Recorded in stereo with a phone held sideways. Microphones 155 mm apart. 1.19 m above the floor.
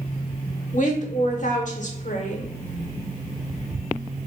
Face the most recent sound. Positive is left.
turn(degrees=55)  # may be behind; listen again after turning